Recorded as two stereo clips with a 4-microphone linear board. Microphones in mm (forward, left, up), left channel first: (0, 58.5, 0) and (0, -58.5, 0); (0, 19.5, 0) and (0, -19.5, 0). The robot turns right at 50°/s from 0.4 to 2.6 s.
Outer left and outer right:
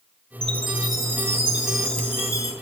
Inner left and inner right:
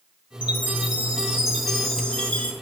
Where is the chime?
65° right, 1.9 m; by 2.5 s 40° left, 1.9 m.